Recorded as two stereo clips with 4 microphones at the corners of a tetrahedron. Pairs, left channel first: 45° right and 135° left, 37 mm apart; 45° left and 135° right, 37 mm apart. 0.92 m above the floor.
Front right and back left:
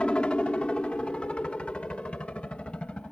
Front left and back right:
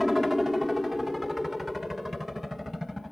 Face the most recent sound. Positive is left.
turn(degrees=-55)